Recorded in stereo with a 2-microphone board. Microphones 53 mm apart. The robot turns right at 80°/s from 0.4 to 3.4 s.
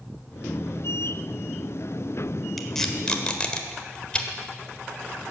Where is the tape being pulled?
5° left (ahead or behind), 1.3 m; by 4.3 s 20° left (ahead or behind), 1.3 m.